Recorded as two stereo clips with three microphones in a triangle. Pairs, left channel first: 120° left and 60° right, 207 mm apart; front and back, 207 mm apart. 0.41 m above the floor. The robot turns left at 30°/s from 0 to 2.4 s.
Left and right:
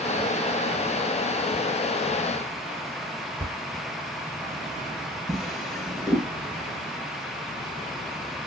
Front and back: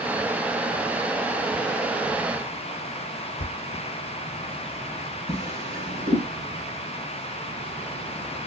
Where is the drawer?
150° right, 1.4 m.